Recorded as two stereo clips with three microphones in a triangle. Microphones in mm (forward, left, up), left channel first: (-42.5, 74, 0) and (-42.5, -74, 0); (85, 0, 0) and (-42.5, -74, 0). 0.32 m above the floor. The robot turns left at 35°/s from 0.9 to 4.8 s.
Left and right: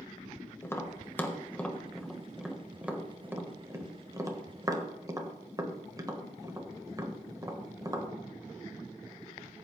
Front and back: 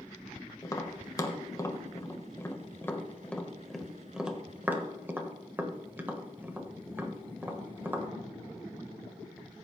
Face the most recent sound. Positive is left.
turn(degrees=-95)